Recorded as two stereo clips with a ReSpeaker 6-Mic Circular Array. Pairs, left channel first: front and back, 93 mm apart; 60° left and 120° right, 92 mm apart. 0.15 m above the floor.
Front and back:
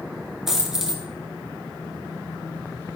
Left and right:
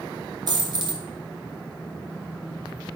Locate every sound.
0.5 s a dropped coin: 95° right, 1.1 m